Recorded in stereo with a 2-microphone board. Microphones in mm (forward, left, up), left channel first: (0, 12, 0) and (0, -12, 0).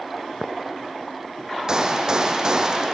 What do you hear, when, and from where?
1.7 s a gunshot: 30° right (ahead or behind), 2 m